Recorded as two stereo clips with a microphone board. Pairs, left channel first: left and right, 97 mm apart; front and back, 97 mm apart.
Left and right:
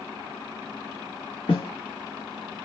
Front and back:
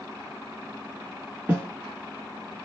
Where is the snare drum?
105° left, 1.5 m.